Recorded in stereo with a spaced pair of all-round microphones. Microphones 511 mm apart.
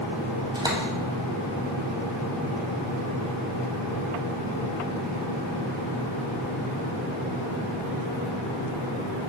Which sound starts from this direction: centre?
A door slam, at 0.6 s.